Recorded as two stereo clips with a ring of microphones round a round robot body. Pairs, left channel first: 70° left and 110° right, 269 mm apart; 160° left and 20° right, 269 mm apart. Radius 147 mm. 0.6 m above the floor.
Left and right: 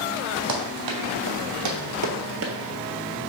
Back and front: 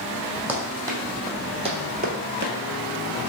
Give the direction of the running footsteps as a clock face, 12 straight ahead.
4 o'clock.